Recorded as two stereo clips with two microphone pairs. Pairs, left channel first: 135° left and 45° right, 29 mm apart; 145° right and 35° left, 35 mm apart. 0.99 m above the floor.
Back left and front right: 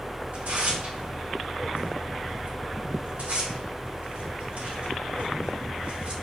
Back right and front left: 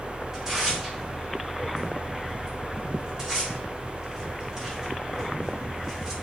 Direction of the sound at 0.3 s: 35° right.